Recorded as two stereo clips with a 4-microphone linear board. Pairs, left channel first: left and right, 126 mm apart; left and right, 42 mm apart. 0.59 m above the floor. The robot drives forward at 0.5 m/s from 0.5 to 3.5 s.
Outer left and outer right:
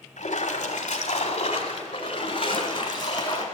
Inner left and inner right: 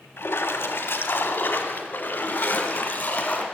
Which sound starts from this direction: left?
A splash, at 0.2 s.